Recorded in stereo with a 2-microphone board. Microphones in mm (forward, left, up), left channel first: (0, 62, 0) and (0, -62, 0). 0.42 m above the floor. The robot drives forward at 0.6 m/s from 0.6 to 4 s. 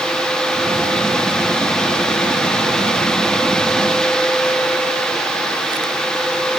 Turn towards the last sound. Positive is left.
No sound to turn to.